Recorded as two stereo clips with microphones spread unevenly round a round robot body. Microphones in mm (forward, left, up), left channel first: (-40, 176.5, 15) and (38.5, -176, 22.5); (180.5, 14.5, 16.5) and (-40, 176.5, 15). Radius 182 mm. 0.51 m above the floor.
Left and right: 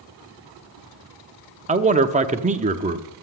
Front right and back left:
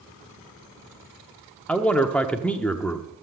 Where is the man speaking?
115° right, 0.7 m.